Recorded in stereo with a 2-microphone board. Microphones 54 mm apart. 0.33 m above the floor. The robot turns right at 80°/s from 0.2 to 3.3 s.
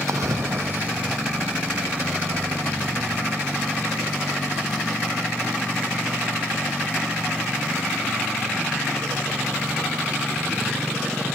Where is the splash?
80° right; by 1.2 s straight ahead.